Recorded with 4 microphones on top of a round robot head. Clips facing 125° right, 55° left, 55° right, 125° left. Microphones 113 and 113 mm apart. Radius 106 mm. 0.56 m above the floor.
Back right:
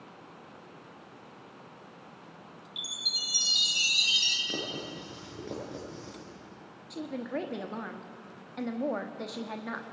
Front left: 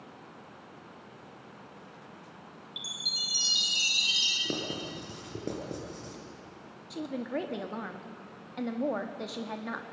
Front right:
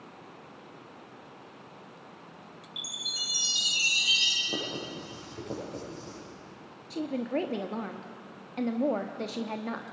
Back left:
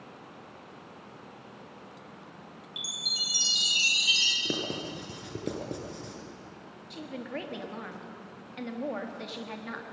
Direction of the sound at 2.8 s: 170° right.